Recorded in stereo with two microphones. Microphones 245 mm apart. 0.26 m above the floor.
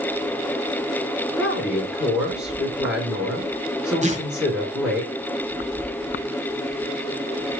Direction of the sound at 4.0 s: 30° right (ahead or behind).